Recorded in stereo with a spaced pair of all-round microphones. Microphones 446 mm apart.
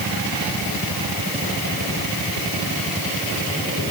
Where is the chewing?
I don't hear chewing.